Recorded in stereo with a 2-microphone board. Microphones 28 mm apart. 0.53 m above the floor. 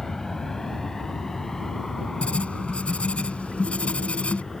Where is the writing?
50° left (ahead or behind).